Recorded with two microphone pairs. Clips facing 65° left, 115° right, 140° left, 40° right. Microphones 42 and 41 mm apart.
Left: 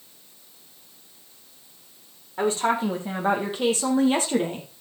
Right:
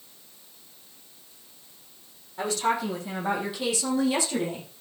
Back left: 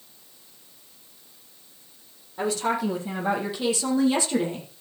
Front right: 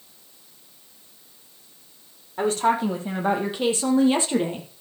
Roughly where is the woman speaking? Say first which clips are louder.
Left 3 dB, front right 4 dB; ahead.